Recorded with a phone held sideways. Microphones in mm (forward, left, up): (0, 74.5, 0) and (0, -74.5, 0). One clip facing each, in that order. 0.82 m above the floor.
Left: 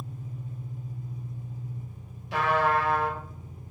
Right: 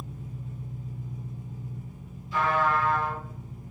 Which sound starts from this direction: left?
A trumpet, at 2.3 s.